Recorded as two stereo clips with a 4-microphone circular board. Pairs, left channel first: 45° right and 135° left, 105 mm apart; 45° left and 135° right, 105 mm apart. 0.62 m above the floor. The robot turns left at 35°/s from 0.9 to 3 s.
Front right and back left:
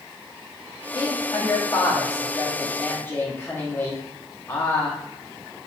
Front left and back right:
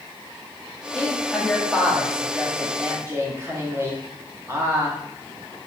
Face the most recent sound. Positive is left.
turn(degrees=-95)